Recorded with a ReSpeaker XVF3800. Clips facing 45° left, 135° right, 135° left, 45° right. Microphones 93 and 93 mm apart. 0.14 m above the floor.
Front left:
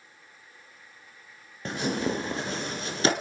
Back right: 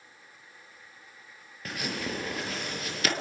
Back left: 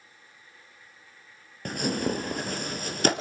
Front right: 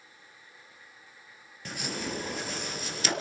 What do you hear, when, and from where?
1.6 s tearing paper: 105° left, 2 m